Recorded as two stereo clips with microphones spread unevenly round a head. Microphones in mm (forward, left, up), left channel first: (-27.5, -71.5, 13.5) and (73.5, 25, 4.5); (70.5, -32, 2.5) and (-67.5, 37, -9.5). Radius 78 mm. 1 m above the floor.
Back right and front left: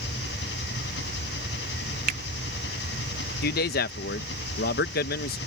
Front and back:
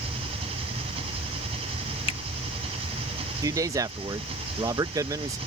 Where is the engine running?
150° right.